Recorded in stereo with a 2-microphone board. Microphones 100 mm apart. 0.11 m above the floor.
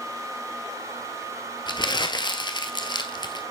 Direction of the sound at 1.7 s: 50° left (ahead or behind).